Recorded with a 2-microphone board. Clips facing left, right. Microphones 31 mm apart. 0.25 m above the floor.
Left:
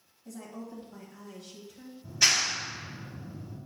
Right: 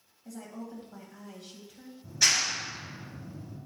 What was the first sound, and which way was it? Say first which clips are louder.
A woman speaking: even; 15° right (ahead or behind).